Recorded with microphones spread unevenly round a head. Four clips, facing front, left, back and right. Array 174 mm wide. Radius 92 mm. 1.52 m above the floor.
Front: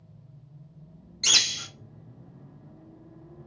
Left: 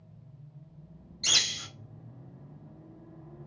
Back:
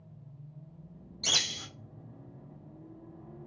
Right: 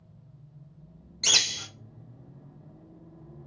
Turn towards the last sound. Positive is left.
turn(degrees=-120)